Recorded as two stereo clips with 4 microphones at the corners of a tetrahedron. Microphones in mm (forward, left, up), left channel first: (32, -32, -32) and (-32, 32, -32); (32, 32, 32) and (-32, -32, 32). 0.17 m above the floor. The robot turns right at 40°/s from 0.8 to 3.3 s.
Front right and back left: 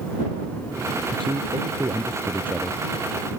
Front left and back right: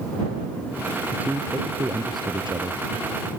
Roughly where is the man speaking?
Behind left.